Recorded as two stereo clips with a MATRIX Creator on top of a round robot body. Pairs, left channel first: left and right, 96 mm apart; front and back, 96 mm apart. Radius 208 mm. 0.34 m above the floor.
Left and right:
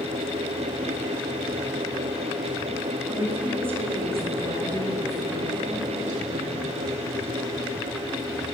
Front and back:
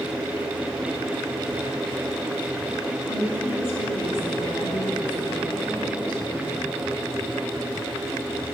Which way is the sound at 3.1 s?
15° right.